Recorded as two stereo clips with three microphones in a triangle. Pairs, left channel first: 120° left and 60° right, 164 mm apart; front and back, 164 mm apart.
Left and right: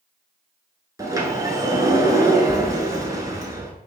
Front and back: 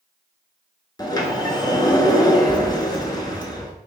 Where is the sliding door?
20° right, 0.7 m.